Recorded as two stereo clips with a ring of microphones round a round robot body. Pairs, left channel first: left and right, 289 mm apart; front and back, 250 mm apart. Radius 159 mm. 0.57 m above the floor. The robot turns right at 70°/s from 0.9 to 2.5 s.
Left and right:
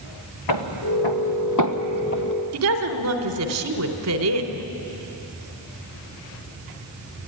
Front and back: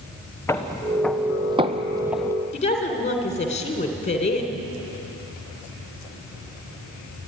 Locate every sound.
0.5 s footsteps: 80° left, 2.5 m; by 2.3 s 75° left, 0.7 m
2.5 s a woman speaking: 65° right, 2.5 m